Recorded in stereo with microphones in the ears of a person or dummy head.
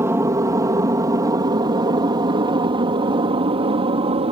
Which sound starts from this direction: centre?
An aircraft, at 0.0 s.